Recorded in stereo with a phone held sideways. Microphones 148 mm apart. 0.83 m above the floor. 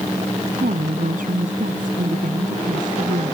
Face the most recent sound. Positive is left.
turn(degrees=-65)  # may be behind; listen again after turning